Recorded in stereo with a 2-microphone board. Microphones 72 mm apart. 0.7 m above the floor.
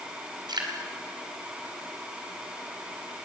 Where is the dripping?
70° right (ahead or behind), 3 m.